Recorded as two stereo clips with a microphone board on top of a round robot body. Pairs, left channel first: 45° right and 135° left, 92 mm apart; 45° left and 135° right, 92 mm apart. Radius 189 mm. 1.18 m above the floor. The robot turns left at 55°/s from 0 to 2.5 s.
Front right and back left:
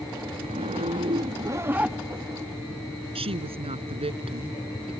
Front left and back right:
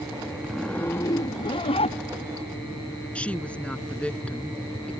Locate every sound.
0.4 s a zipper: 135° left; by 2.5 s 25° left
3.1 s a woman speaking: 120° left